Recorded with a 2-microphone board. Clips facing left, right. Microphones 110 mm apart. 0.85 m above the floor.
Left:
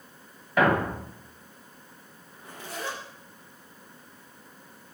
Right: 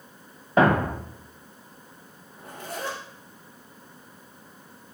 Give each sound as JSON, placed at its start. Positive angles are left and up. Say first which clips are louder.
{"t": 0.6, "sound": "a thud", "louder": "right 3 dB", "side_deg": -30, "distance_m": 1.2}
{"t": 2.3, "sound": "a zipper", "louder": "right 3 dB", "side_deg": -50, "distance_m": 4.5}